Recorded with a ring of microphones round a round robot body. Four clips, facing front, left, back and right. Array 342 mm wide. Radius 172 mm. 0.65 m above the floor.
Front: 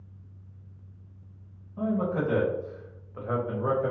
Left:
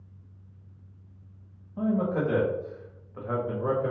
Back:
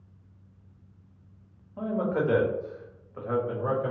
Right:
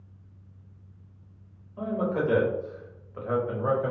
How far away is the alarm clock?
I don't hear an alarm clock.